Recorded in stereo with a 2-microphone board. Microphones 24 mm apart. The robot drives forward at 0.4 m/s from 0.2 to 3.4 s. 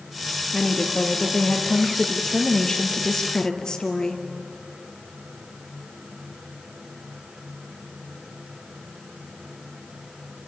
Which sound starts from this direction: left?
A woman speaking, at 0.5 s.